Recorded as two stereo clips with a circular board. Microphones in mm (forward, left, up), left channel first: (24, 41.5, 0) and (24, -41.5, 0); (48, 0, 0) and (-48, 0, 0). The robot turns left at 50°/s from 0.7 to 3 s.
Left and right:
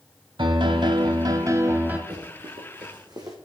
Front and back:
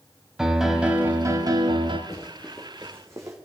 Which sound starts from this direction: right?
A piano, at 0.4 s.